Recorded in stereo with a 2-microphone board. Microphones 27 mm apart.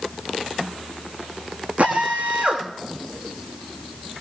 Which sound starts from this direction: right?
A drill, at 1.8 s.